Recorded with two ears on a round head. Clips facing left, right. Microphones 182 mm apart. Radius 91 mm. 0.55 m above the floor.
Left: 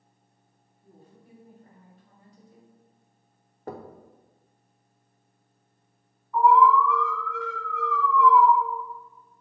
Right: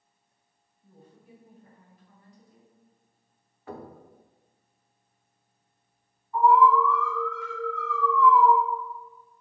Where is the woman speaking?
55° left (ahead or behind), 3 m; by 2.7 s 45° left (ahead or behind), 1.9 m.